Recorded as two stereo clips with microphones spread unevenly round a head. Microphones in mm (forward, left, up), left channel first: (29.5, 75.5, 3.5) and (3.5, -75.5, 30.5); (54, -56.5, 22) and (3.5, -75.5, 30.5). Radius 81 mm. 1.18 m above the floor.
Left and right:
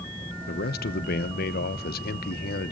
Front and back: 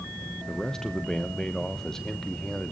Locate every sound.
0.5 s a man speaking: 105° left, 0.8 m